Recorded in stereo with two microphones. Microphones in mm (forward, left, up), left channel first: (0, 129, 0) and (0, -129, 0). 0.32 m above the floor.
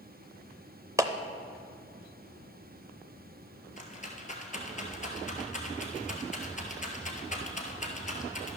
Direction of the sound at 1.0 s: 15° right (ahead or behind).